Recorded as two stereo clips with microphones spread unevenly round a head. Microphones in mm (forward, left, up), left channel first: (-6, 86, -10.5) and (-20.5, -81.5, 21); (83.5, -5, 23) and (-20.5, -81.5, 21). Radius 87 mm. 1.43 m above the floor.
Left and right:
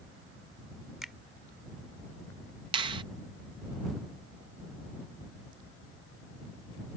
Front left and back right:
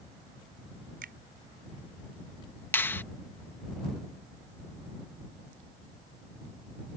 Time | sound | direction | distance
1.0 | a finger snap | straight behind | ?
2.7 | a finger snap | 35° right | ?